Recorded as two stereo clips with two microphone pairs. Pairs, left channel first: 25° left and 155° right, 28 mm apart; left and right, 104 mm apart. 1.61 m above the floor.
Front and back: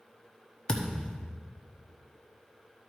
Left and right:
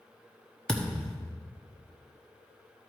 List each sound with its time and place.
0.7 s a thud: 15° left, 1.2 m